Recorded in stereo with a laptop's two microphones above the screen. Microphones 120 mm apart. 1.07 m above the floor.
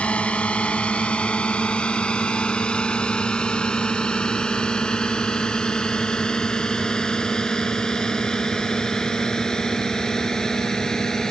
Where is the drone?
10° left (ahead or behind); by 11.3 s 5° left (ahead or behind).